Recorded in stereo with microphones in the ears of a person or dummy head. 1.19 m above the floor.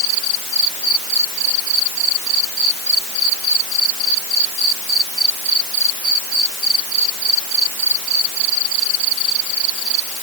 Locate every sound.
Only background noise.